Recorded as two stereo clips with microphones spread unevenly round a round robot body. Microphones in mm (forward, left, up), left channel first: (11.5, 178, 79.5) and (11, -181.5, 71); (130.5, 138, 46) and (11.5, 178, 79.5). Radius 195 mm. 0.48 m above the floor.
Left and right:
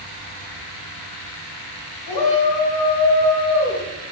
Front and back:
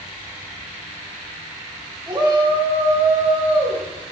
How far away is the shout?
About 2.5 m.